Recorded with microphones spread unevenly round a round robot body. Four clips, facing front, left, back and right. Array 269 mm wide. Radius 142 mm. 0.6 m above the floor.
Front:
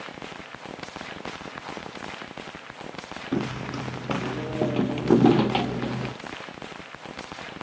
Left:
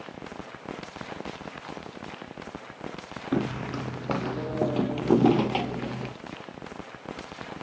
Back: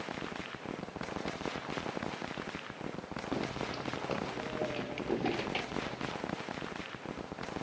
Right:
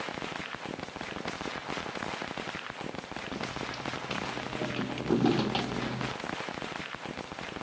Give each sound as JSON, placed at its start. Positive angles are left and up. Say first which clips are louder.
{"t": 3.3, "sound": "footsteps", "louder": "left 10 dB, front 8 dB", "azimuth_deg": 45}